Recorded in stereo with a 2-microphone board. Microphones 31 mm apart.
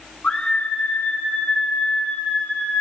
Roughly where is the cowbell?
No cowbell in this recording.